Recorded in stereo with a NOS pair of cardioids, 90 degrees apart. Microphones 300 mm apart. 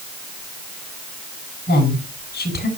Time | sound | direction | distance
1.7 | a woman speaking | 35° left | 9 m